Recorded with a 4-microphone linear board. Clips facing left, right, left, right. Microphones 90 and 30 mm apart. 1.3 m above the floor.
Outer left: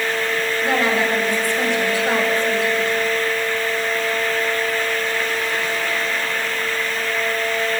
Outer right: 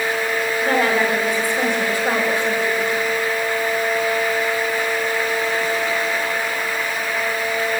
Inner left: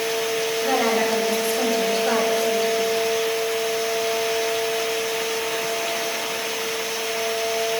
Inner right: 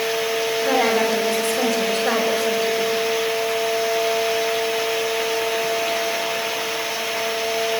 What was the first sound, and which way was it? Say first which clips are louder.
A woman speaking: outer right 1 dB, inner right 2 dB; 50° right (ahead or behind).